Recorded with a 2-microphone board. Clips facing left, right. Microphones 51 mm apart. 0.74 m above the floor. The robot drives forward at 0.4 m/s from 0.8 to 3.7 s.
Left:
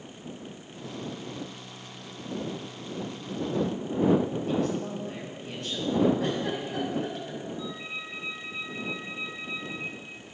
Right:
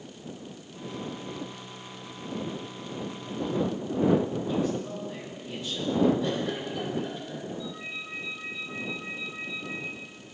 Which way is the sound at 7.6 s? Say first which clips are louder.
Left 1 dB; 85° left.